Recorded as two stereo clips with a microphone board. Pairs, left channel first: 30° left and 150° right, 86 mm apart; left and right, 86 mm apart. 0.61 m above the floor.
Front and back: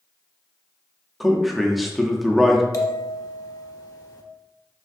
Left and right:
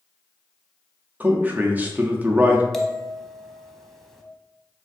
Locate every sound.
1.2 s a man speaking: 60° right, 0.6 m
2.7 s a bell: 5° left, 0.6 m